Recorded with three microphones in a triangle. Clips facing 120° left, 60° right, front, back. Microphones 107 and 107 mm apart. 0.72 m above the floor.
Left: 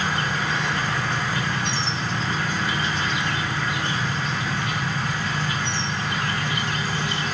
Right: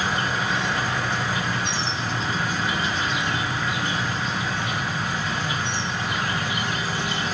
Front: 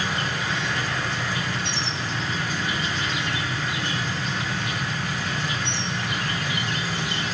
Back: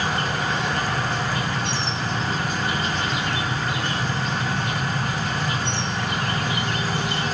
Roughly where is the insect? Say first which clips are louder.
Even, back 3 dB; behind right.